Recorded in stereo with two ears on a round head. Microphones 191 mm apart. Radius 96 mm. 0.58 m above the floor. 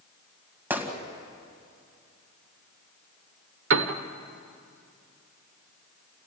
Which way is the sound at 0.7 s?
10° right (ahead or behind).